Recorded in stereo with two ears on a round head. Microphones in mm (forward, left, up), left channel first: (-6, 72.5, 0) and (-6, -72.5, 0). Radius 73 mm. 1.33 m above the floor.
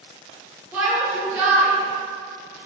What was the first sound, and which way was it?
A shout, 10° right (ahead or behind).